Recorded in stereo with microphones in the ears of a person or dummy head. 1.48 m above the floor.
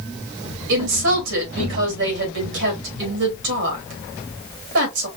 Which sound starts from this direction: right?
A woman speaking, at 0.7 s.